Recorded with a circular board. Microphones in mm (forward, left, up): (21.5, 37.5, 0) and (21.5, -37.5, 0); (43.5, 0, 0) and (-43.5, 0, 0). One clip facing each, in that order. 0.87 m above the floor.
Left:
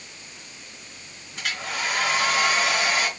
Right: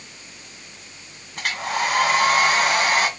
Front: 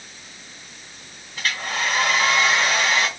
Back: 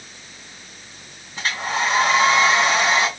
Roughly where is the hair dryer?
Behind right.